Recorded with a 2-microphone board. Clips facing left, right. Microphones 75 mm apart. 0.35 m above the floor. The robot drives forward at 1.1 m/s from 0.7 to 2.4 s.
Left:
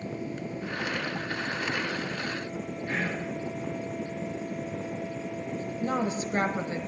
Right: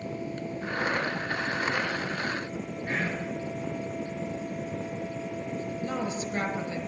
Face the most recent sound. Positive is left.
turn(degrees=35)  # may be behind; listen again after turning